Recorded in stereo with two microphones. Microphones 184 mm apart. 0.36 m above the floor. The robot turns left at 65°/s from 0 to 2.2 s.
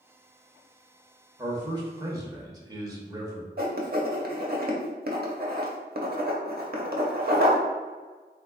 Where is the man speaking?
20° right (ahead or behind), 0.8 m.